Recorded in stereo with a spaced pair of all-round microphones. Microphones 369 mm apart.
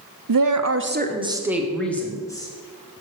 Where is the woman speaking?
65° right (ahead or behind), 0.7 m; by 2.5 s 10° left (ahead or behind), 1.9 m.